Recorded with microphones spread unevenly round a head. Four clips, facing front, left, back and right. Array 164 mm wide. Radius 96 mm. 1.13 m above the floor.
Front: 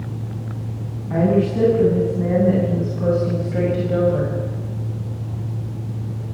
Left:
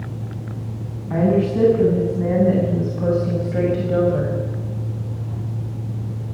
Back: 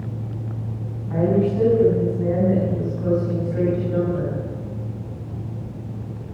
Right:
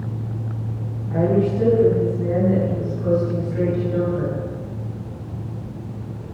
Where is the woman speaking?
40° left, 9.5 m; by 4.3 s 35° left, 5.5 m.